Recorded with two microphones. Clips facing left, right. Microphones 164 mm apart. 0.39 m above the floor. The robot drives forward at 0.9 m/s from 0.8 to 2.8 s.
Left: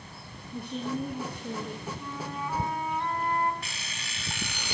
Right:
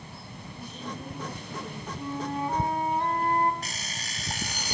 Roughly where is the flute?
Right.